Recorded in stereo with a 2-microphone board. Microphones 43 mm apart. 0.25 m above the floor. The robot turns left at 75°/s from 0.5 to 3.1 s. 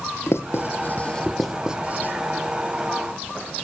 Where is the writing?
70° left (ahead or behind), 1.7 m; by 2.1 s 50° right (ahead or behind), 1.7 m.